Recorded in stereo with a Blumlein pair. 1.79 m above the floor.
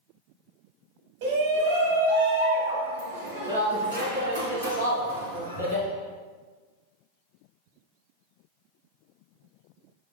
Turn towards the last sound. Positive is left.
turn(degrees=-80)